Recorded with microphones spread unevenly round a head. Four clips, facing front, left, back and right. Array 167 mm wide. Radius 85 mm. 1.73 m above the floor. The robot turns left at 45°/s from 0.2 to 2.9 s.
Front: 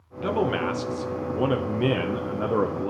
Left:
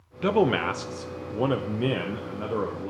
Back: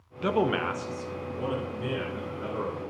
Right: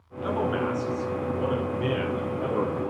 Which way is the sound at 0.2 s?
110° left.